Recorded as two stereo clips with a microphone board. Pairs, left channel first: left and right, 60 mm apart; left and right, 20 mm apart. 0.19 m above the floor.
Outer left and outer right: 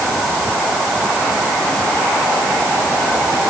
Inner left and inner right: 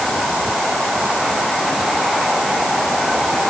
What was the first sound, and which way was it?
Only background noise.